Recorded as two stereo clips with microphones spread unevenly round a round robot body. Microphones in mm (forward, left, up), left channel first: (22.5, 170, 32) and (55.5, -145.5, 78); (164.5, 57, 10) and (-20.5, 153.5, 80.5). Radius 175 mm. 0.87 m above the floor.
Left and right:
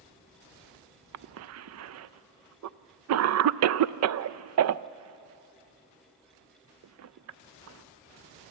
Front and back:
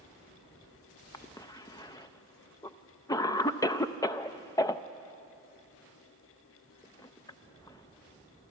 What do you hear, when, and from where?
1.1 s a cough: 60° right, 0.5 m